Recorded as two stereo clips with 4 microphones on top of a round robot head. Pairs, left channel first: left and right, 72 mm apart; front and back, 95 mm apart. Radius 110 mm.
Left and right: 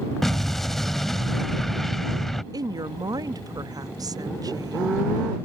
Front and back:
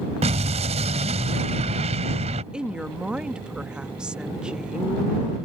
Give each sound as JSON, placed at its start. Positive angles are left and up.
{"t": 0.2, "sound": "an explosion", "azimuth_deg": 175}
{"t": 2.5, "sound": "a woman speaking", "azimuth_deg": -95}